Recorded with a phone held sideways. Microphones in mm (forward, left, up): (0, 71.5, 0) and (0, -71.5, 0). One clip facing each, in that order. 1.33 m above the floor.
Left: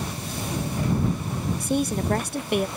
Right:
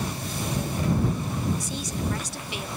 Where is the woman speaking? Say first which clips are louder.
Left 7 dB; 55° left (ahead or behind).